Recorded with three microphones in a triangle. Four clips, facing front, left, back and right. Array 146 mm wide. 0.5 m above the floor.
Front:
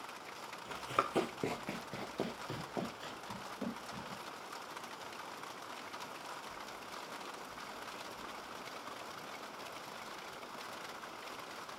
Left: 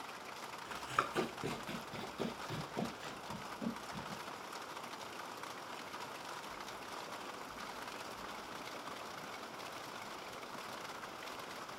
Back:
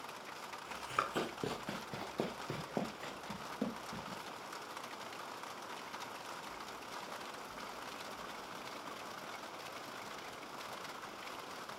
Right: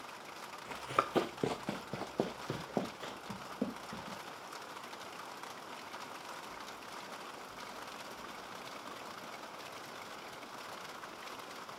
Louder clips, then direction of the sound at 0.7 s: Right 4 dB, front 3 dB; 45° right.